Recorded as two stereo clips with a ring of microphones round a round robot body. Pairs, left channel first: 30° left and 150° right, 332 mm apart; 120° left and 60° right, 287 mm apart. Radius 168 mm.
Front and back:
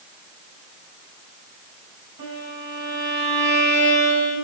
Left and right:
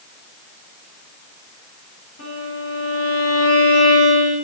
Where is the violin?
175° left, 6 m.